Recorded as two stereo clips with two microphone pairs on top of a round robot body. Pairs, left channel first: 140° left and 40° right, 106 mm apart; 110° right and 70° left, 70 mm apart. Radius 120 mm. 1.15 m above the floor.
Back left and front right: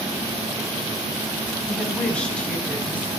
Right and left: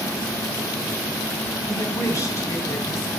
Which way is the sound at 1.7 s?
140° right.